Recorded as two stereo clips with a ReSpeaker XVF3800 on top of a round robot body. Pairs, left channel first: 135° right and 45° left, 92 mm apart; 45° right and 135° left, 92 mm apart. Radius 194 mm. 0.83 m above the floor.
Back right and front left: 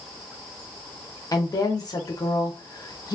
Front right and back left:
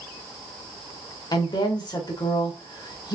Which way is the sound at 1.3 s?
85° right.